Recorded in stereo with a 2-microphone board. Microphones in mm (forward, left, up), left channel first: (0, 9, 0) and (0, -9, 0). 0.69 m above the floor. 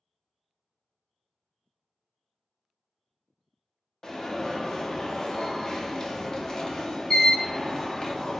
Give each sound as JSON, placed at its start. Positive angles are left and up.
{"t": 4.0, "sound": "an alarm", "side_deg": 35, "distance_m": 0.7}